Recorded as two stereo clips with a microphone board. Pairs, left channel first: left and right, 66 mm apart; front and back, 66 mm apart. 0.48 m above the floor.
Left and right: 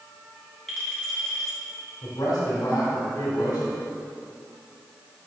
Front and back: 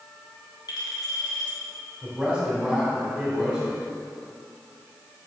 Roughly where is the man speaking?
Left.